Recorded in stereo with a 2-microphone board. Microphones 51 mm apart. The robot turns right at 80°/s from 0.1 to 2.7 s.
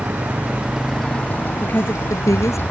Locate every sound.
0.0 s a motorcycle: 65° right; by 2.7 s 145° left
1.6 s a woman speaking: 30° left; by 2.6 s 110° left